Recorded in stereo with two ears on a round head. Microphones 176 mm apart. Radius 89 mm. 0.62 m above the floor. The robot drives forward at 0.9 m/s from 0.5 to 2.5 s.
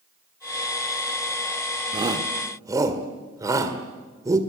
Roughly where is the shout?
Right.